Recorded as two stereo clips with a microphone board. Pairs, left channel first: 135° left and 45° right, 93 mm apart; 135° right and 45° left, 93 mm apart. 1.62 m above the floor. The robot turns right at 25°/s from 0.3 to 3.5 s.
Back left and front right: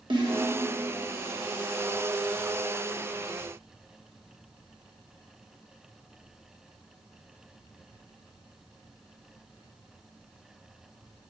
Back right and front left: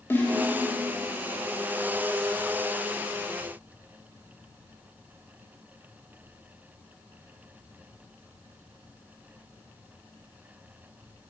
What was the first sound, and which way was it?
A snare drum, 70° right.